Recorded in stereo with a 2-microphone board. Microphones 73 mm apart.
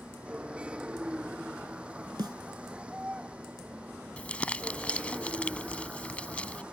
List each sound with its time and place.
0.0 s a vehicle: 15° right (ahead or behind)
2.2 s a snare drum: 85° right
4.2 s crumpling: 15° left (ahead or behind)